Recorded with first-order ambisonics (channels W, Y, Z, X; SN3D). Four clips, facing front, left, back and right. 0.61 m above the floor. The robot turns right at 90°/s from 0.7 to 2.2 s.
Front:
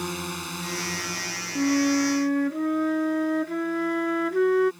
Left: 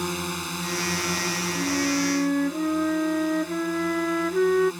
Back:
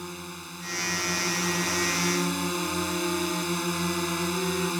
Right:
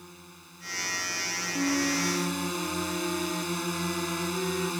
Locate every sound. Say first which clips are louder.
0.0 s a drone: left 20 dB, front 7 dB; 65° left; by 4.8 s 160° right
1.6 s a flute: left 1 dB, front 4 dB; 10° right; by 4.7 s 45° left